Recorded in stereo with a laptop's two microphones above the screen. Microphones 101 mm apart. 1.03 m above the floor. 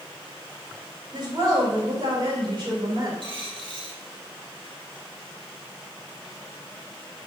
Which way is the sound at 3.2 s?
55° right (ahead or behind).